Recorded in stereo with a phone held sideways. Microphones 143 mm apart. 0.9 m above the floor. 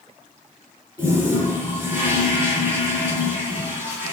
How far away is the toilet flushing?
About 2.5 m.